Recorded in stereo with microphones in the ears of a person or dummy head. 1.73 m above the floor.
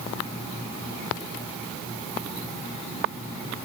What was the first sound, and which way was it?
Only background noise.